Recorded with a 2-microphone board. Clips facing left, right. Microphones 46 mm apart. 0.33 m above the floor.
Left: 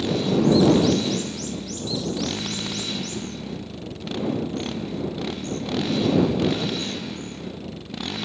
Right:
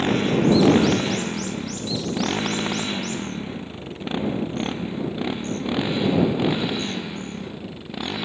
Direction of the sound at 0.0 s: 45° right (ahead or behind).